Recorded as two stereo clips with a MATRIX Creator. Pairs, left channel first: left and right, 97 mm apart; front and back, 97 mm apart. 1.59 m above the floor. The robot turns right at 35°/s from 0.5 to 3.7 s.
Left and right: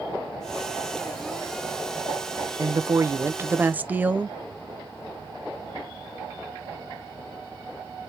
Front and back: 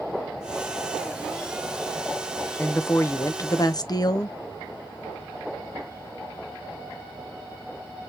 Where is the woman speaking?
60° right, 0.5 m; by 4.3 s 25° right, 0.5 m.